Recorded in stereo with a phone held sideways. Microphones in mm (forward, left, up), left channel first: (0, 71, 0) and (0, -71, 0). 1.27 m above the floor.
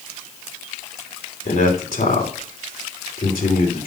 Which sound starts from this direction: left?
A man speaking, at 1.4 s.